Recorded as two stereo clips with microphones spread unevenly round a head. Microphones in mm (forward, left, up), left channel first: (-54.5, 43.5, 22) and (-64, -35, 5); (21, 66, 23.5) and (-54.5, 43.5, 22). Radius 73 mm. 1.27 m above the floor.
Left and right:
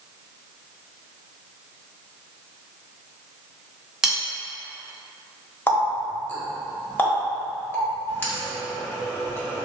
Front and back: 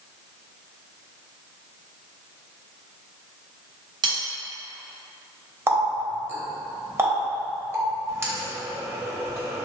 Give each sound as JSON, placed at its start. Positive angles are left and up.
{"t": 4.0, "sound": "cutlery clinking", "azimuth_deg": 175, "distance_m": 1.1}
{"t": 5.7, "sound": "a running tap", "azimuth_deg": 140, "distance_m": 1.1}